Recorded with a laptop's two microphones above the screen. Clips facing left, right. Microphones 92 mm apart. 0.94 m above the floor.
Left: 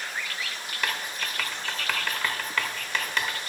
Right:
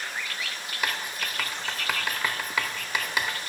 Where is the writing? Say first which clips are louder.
Even; 10° right (ahead or behind), 1.1 m.